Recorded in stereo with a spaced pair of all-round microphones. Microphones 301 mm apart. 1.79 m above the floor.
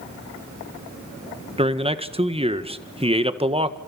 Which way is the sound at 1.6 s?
20° right (ahead or behind).